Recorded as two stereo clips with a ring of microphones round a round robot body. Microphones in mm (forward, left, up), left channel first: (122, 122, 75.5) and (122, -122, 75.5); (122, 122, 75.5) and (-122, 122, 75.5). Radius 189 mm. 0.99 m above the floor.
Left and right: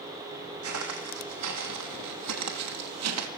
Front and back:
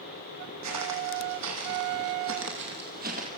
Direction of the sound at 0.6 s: 140° right.